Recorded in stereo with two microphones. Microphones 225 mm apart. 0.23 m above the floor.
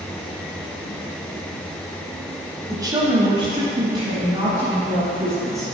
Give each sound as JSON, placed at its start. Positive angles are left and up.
{"t": 2.7, "sound": "a woman speaking", "side_deg": -15, "distance_m": 1.1}